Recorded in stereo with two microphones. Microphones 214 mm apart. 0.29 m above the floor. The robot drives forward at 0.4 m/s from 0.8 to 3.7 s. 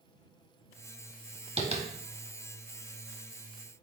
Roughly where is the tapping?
Right.